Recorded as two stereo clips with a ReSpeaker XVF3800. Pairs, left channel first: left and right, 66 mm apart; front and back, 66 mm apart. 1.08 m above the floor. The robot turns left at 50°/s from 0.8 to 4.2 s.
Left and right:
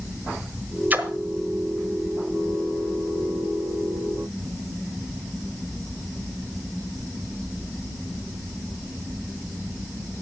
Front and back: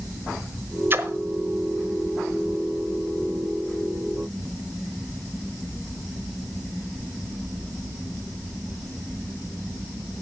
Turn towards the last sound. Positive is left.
turn(degrees=60)